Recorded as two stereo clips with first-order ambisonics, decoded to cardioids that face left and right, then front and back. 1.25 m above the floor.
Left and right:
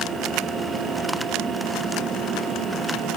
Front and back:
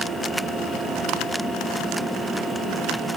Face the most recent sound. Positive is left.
No sound to turn to.